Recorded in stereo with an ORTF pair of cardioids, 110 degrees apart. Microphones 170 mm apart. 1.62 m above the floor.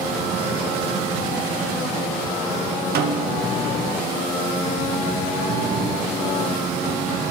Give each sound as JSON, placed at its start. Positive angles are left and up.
{"t": 3.0, "sound": "a snare drum", "azimuth_deg": -70, "distance_m": 0.9}